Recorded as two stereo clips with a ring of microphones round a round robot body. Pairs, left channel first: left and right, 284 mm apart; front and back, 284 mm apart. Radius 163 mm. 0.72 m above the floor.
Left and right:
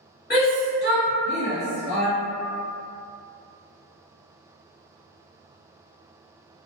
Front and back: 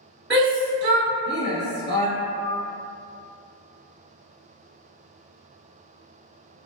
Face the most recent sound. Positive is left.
turn(degrees=30)